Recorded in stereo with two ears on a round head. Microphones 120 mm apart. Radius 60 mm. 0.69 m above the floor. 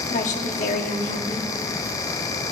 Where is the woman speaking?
60° left (ahead or behind), 1.1 m.